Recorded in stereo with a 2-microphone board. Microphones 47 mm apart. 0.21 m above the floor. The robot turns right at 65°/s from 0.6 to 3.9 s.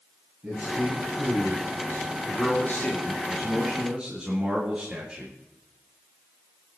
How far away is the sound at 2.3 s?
About 3.5 m.